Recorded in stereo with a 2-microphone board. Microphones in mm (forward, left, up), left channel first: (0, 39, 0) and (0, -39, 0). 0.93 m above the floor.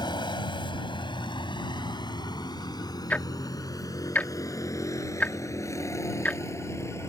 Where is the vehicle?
70° left (ahead or behind); by 7.1 s 35° left (ahead or behind).